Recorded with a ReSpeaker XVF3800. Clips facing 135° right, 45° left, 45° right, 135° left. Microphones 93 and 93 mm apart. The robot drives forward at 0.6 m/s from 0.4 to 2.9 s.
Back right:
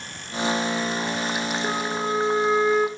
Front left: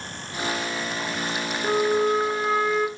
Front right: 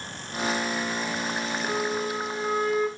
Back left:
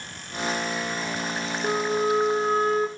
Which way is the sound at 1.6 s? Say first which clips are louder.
Front left 9 dB, back left 7 dB; 130° left.